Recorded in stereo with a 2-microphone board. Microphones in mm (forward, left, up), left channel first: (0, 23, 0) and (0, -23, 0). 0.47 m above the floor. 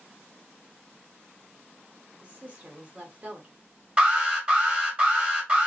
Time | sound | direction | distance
2.2 | a woman speaking | 30° right (ahead or behind) | 0.9 m
4.0 | an alarm | 20° right (ahead or behind) | 1.3 m